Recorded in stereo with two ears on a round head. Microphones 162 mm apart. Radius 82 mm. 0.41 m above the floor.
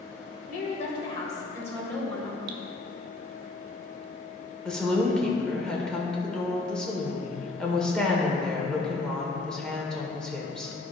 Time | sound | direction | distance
0.5 | a woman speaking | 40° left (ahead or behind) | 1.9 m
2.5 | dripping | 70° right (ahead or behind) | 0.9 m
4.7 | a woman speaking | 5° left (ahead or behind) | 1.3 m